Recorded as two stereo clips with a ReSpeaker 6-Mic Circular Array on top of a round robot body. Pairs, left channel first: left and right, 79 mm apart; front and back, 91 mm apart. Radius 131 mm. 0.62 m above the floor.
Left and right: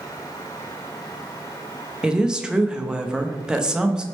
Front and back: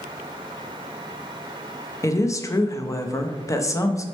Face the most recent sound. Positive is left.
turn(degrees=-15)